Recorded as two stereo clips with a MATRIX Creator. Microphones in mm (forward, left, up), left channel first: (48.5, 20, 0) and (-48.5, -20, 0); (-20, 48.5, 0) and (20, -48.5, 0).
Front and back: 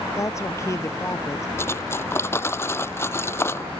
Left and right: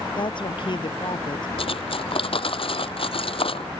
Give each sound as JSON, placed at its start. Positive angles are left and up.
{"t": 0.2, "sound": "a woman speaking", "azimuth_deg": 80}
{"t": 1.6, "sound": "cutlery clinking", "azimuth_deg": 90}